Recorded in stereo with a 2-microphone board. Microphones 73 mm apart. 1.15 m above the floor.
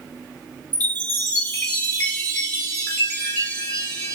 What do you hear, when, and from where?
0.7 s a chime: 30° left (ahead or behind), 1.1 m